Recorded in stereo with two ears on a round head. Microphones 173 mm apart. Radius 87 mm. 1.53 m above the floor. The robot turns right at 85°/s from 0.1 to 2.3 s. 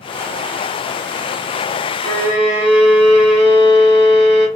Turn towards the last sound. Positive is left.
turn(degrees=-5)  # may be behind; listen again after turning